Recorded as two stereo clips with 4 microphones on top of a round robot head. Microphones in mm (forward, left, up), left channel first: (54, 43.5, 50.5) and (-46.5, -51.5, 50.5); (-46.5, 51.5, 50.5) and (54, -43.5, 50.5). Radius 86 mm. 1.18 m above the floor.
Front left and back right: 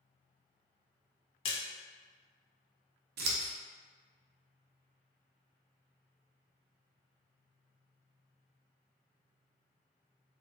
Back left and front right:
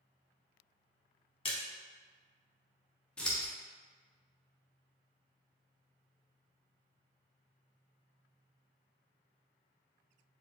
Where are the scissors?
140° right, 0.6 m.